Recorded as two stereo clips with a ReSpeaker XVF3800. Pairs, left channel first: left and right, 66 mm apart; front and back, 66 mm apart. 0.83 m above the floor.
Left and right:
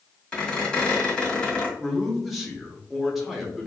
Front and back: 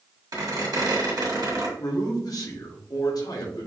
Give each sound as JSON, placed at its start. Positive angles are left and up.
{"t": 0.3, "sound": "a squeak", "azimuth_deg": 165, "distance_m": 1.8}
{"t": 1.8, "sound": "a man speaking", "azimuth_deg": 0, "distance_m": 1.6}